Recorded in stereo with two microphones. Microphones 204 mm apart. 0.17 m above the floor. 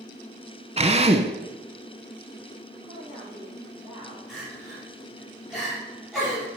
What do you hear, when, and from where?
0.8 s a drill: 30° right (ahead or behind), 0.9 m
2.8 s a woman speaking: 25° right (ahead or behind), 5 m
4.3 s crying: centre (ahead or behind), 5 m